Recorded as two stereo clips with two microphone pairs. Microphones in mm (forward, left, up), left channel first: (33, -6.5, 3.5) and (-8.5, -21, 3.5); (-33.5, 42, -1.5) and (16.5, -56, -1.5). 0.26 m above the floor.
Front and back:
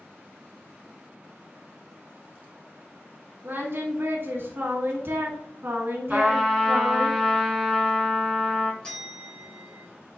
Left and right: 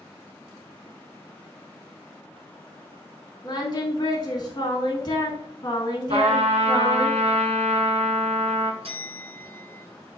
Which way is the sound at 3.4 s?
165° left.